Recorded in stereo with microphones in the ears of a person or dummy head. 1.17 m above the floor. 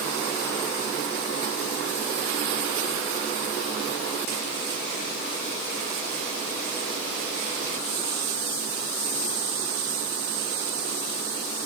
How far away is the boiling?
No boiling in this recording.